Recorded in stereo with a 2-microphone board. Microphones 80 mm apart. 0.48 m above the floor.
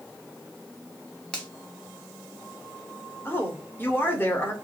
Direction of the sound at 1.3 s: 10° left (ahead or behind).